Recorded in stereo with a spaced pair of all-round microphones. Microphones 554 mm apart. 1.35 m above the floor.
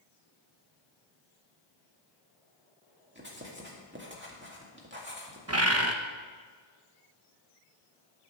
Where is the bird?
25° right (ahead or behind), 0.9 m.